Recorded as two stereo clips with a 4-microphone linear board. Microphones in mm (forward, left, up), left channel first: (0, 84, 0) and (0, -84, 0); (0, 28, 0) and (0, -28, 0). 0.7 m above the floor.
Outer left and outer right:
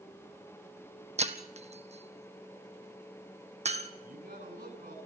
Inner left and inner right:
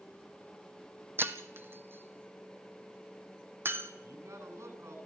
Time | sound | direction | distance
1.2 | breaking glass | 40° right (ahead or behind) | 1.6 m
4.0 | a man speaking | 65° right (ahead or behind) | 8.5 m